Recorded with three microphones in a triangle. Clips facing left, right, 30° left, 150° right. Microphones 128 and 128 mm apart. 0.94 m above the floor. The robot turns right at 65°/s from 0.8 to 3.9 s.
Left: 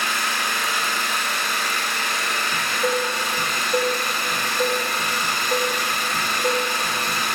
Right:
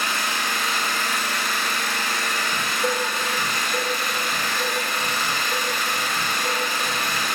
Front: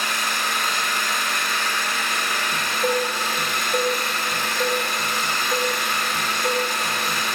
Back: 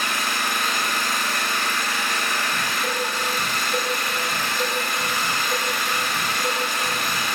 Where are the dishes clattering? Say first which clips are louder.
Left 3 dB, front 4 dB; 35° left, 1.0 m; by 7.2 s 125° left, 1.0 m.